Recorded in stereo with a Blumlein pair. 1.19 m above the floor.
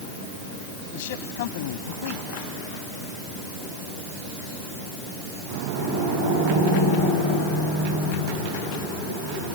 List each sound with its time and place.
0.9 s a man speaking: 50° left